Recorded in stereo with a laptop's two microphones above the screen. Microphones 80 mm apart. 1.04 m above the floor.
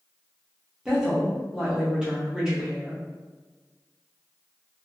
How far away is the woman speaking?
About 0.8 m.